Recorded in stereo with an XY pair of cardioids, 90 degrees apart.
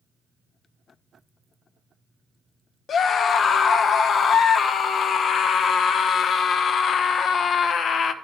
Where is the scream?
65° left, 0.9 m.